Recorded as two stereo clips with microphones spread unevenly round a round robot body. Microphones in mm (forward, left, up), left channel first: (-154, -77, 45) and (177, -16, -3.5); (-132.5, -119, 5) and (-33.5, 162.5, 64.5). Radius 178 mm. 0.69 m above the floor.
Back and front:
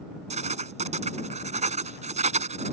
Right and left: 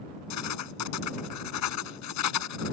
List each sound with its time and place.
0.3 s writing: 60° right